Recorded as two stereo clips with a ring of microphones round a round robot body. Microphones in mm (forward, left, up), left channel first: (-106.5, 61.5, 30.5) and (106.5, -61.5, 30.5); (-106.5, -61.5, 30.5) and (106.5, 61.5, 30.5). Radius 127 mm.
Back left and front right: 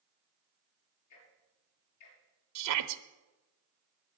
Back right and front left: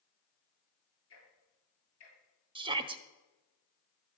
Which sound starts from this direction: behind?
Ticking, at 1.1 s.